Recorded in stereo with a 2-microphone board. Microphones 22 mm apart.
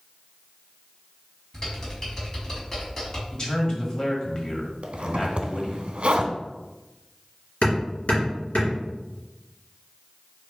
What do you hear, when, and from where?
1.5 s typing on a keyboard: 25° left (ahead or behind), 1.9 m
3.3 s a man speaking: 30° left (ahead or behind), 1.1 m
4.8 s a zipper: 60° right (ahead or behind), 0.5 m
7.6 s hammering: 65° left (ahead or behind), 2 m